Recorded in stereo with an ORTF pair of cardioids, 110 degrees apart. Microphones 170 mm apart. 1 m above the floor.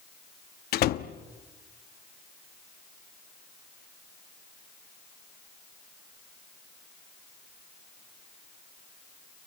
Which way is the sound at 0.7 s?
65° left.